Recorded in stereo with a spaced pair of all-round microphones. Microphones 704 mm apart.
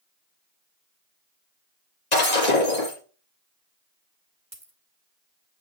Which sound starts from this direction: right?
A dropped coin, at 4.5 s.